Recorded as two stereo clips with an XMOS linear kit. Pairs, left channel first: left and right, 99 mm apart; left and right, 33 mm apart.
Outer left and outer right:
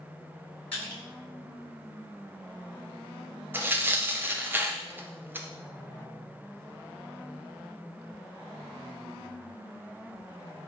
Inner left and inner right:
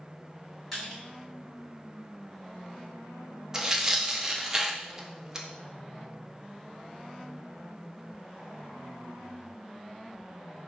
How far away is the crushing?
About 2.5 m.